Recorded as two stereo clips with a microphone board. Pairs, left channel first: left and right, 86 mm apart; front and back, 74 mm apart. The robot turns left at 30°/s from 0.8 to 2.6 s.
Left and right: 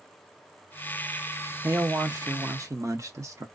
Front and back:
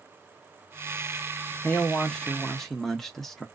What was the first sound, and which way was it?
A man speaking, 55° right.